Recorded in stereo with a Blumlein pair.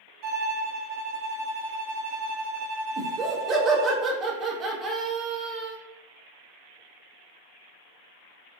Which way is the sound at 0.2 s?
35° right.